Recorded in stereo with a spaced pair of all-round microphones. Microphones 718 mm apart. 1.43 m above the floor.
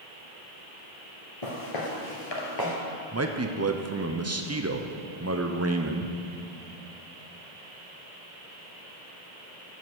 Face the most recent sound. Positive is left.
turn(degrees=-25)  # may be behind; listen again after turning